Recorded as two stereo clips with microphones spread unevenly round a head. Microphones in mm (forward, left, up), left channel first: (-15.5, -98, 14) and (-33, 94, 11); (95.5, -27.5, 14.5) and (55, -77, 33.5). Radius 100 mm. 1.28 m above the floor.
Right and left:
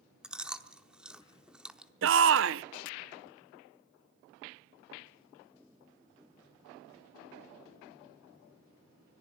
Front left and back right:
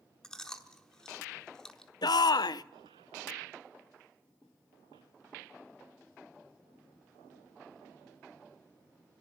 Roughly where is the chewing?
Behind.